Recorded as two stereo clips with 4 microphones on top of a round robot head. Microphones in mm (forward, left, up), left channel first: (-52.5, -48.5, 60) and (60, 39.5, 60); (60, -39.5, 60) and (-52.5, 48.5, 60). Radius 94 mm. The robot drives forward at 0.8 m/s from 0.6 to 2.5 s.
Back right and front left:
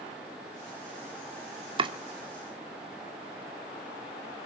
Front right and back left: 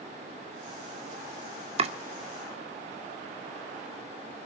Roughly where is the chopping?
Left.